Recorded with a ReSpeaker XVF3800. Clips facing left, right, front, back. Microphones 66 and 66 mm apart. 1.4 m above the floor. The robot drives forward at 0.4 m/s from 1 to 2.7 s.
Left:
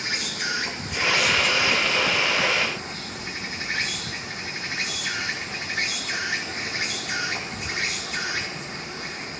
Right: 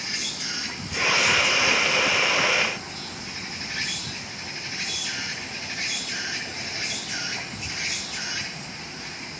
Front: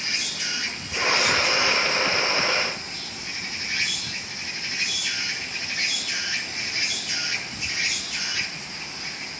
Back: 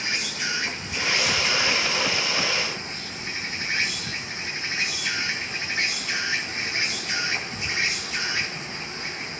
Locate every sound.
0.0 s an insect: 110° left, 5 m; by 9.4 s 120° left, 5.5 m